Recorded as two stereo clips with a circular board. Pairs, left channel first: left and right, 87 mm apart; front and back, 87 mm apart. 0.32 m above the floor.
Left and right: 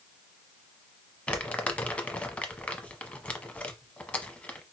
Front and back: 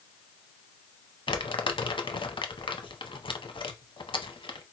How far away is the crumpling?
About 0.7 m.